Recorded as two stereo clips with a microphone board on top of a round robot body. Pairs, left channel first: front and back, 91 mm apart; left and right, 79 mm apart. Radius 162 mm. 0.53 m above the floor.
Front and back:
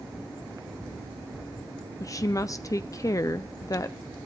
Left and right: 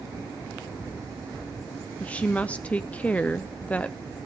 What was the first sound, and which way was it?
A woman speaking, 25° left.